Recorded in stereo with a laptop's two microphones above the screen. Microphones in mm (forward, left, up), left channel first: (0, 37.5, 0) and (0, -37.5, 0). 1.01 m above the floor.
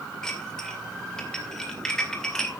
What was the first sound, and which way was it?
Dishes clattering, 10° left (ahead or behind).